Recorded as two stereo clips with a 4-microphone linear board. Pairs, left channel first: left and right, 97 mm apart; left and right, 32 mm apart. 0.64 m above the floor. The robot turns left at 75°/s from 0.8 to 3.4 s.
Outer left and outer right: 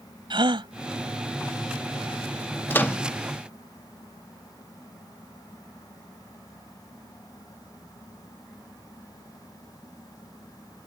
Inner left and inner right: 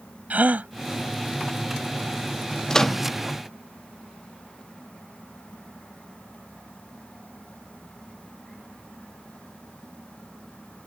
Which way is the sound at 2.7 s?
20° left (ahead or behind).